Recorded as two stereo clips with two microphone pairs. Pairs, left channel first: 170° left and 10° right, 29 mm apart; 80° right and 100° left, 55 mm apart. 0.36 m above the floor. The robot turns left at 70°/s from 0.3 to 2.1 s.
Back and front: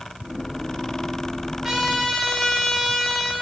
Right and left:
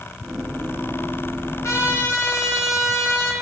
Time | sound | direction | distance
1.6 | a trumpet | 80° right | 1.3 m